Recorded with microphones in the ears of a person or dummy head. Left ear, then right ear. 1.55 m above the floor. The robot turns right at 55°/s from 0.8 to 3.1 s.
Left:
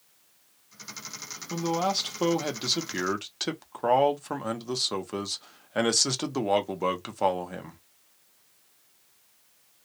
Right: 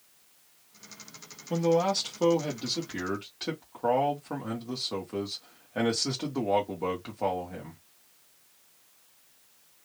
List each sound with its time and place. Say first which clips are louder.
1.5 s a man speaking: right 2 dB; 5° right, 0.9 m; by 7.8 s 85° left, 0.9 m